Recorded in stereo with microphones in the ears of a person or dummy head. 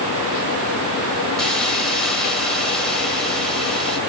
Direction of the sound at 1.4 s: 5° left (ahead or behind).